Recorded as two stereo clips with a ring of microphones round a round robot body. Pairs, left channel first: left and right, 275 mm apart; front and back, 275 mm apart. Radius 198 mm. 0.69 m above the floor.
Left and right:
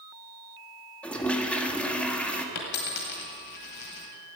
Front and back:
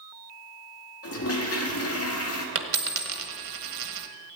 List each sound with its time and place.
1.0 s a toilet flushing: 5° left, 1.7 m
2.5 s a dropped coin: 140° left, 1.4 m